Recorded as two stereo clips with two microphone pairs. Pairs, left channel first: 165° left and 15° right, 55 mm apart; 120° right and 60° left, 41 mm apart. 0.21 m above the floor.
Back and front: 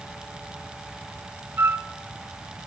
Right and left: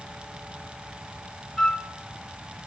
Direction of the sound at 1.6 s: 50° right.